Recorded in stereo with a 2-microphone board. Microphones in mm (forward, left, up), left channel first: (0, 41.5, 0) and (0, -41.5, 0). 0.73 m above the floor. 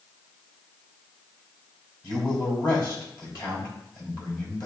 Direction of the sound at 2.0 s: 55° left (ahead or behind).